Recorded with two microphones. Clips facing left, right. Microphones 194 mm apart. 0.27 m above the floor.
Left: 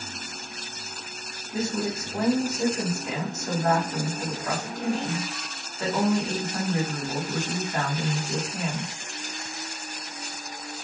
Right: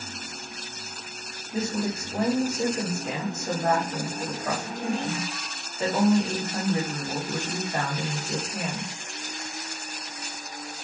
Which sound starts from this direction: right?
A woman speaking, at 1.5 s.